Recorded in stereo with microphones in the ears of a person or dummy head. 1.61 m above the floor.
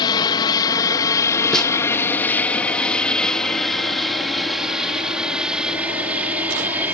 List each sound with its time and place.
0.0 s an aircraft: 25° left (ahead or behind); by 6.9 s 10° right (ahead or behind)
1.5 s a snare drum: 5° left (ahead or behind)